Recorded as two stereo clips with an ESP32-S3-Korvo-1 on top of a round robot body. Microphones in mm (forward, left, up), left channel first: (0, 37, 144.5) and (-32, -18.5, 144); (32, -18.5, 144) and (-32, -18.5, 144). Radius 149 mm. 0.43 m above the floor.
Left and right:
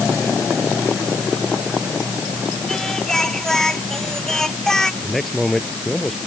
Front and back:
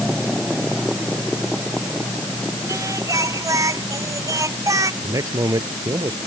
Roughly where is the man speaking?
Behind left.